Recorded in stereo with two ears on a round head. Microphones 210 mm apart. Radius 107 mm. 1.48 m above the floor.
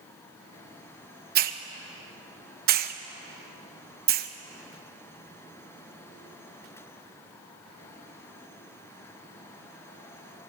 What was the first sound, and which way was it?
A hiss, 40° right (ahead or behind).